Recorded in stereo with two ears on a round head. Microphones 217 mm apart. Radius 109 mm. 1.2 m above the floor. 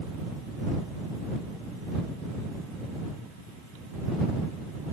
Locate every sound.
Only background noise.